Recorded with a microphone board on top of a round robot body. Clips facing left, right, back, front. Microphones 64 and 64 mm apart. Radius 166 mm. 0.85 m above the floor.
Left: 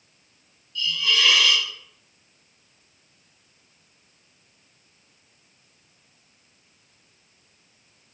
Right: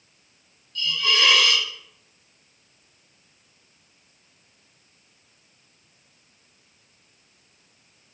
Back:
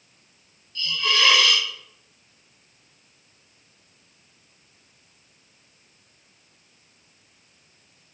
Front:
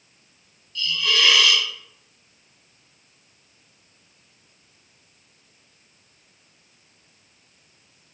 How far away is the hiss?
About 1.0 m.